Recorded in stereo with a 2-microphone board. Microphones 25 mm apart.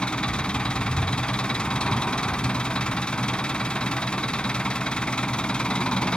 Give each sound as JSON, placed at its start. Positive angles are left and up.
{"t": 0.0, "sound": "an engine running", "side_deg": 55, "distance_m": 1.1}